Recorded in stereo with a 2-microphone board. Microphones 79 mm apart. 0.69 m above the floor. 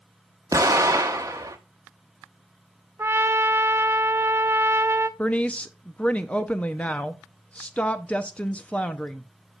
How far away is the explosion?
About 1.0 m.